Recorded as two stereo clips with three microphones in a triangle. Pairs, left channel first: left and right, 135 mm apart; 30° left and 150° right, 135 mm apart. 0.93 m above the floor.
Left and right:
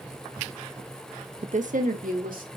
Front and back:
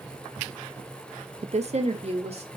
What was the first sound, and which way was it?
A woman speaking, 120° right.